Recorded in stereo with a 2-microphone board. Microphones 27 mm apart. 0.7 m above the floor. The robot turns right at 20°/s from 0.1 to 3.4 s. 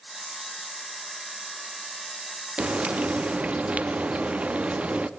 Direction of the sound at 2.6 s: 50° right (ahead or behind).